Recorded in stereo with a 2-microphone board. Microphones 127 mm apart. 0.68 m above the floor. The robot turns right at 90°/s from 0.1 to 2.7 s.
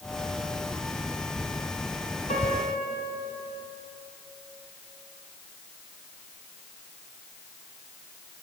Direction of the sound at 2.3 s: 90° left.